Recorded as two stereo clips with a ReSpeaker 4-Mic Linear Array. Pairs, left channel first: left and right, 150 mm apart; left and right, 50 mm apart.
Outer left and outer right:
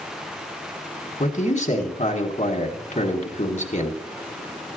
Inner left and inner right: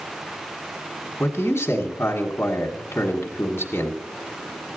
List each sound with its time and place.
1.2 s a man speaking: 50° left (ahead or behind), 1.8 m